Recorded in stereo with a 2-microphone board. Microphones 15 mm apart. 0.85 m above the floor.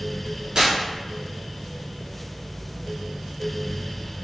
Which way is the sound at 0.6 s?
65° right (ahead or behind).